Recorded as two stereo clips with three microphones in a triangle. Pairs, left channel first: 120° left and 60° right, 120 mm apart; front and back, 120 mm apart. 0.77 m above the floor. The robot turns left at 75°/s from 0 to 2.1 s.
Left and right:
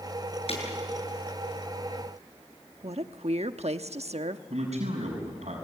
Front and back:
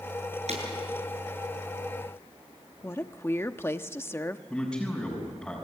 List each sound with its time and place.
0.5 s breaking glass: 155° left, 7 m; by 0.6 s 145° left, 7 m
2.8 s a woman speaking: 70° right, 1.1 m
4.5 s a man speaking: 85° right, 6 m